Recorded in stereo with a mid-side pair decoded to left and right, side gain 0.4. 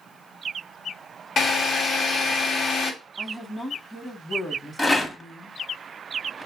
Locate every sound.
1.4 s a drill: 55° left, 1.1 m
3.2 s a woman speaking: 20° left, 1.0 m
4.8 s a rattle: 15° left, 0.9 m